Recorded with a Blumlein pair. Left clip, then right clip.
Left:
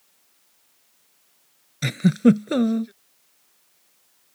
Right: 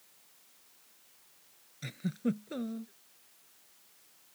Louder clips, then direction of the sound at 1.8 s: Left 17 dB; 55° left.